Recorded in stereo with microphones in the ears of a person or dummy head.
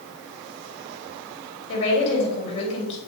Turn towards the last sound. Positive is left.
turn(degrees=40)  # may be behind; listen again after turning